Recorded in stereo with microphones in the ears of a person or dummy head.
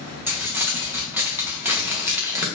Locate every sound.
0.3 s crumpling: 15° right (ahead or behind), 0.6 m